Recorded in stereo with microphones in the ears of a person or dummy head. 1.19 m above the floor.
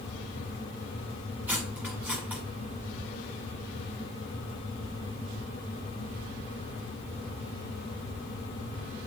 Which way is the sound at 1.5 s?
10° right (ahead or behind).